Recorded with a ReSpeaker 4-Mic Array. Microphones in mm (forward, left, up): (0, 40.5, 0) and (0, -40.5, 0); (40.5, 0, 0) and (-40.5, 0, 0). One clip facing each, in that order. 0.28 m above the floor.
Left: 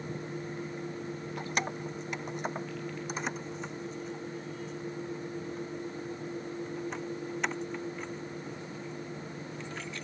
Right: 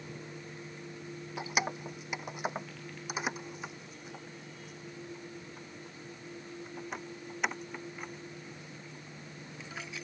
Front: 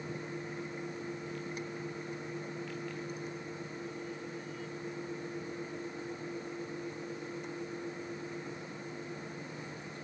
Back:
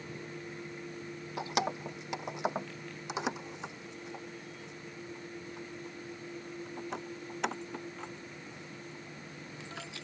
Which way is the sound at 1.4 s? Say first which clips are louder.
Right 1 dB, back 6 dB; 175° right.